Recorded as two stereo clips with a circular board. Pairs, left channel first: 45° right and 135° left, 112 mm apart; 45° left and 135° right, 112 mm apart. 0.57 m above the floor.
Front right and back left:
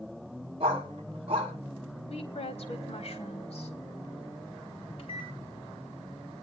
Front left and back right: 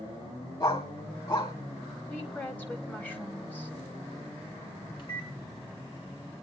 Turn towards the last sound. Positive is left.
turn(degrees=0)